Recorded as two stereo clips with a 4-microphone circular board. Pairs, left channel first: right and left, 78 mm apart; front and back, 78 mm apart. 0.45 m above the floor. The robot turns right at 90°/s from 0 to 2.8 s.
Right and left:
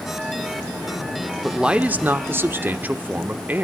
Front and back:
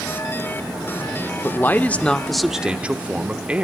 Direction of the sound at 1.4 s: 5° left.